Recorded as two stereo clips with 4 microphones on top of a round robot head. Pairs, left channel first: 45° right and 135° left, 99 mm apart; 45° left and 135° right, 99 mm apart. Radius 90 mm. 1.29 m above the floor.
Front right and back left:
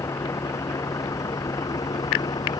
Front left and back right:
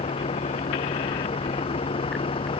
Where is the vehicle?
20° left; by 2.6 s 10° left.